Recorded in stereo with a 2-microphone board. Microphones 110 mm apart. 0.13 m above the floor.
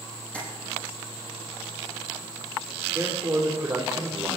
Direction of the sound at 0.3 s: 10° left (ahead or behind).